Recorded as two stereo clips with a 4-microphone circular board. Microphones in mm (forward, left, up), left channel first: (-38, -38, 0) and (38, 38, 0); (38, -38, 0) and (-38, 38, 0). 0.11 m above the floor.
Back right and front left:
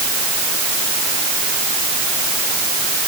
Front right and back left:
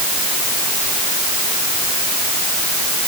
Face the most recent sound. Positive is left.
No sound to turn to.